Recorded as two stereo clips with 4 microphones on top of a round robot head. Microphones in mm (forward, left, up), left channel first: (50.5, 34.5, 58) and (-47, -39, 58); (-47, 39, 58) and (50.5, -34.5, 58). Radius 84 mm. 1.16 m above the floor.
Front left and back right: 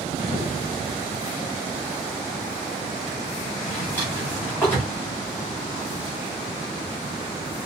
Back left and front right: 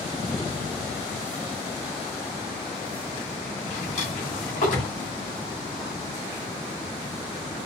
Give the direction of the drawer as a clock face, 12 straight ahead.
8 o'clock.